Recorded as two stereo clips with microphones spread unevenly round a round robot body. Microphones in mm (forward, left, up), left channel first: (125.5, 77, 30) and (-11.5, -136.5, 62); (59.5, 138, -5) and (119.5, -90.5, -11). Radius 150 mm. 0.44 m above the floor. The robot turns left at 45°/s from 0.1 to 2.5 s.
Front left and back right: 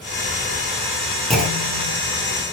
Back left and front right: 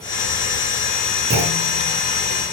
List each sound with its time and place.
1.3 s a clunk: 30° right, 5.5 m; by 1.9 s 55° right, 5.5 m